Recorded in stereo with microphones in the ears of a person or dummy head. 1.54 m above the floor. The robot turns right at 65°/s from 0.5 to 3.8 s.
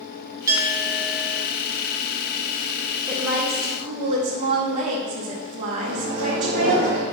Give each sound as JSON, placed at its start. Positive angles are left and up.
{"t": 0.5, "sound": "a clink", "azimuth_deg": -15, "distance_m": 1.0}
{"t": 3.1, "sound": "a woman speaking", "azimuth_deg": 175, "distance_m": 1.3}
{"t": 5.8, "sound": "a microwave", "side_deg": -70, "distance_m": 1.7}